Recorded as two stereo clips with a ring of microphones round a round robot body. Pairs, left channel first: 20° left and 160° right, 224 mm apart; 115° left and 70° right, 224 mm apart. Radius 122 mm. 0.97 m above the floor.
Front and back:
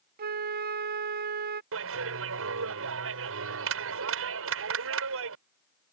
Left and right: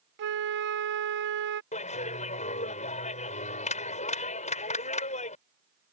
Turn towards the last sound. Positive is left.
turn(degrees=175)